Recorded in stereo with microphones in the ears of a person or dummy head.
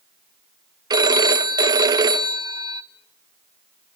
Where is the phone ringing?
20° right (ahead or behind), 0.8 m.